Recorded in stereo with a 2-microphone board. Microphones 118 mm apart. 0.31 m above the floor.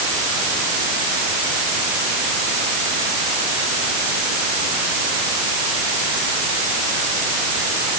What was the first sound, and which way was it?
Only background noise.